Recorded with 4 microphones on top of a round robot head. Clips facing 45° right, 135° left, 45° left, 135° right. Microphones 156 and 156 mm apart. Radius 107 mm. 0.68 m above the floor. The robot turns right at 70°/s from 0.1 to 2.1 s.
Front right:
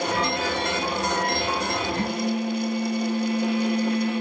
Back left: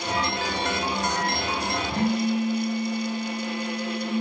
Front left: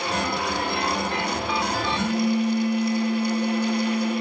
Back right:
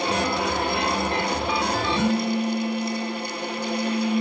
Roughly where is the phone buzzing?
Behind left.